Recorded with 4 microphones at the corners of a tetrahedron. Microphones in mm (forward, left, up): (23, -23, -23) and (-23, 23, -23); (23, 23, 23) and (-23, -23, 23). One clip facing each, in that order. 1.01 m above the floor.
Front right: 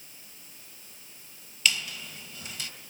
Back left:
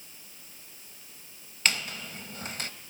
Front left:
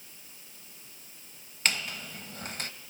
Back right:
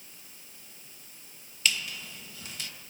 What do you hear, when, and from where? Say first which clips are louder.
1.6 s a squeak: even, even; 90° left, 0.5 m